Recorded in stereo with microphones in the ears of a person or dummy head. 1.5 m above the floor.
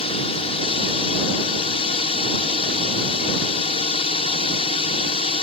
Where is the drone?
35° left (ahead or behind).